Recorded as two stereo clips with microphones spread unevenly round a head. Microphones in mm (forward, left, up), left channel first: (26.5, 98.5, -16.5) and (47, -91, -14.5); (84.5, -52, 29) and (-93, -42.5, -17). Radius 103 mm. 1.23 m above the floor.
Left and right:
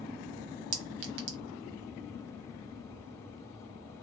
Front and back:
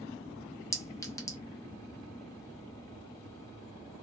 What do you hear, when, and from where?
0.7 s a clink: 70° right, 1.0 m